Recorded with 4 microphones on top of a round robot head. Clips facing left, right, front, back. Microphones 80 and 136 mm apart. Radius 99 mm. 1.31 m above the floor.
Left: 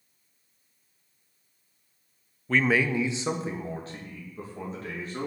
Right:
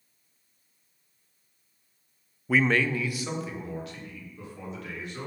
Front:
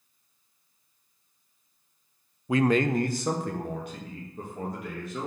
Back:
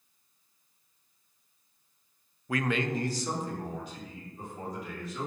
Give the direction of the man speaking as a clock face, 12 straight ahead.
1 o'clock.